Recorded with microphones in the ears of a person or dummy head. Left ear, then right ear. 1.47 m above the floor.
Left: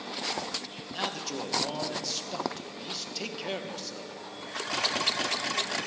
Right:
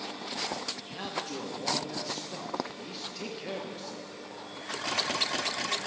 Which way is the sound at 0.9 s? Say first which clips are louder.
Left 7 dB; 15° left (ahead or behind).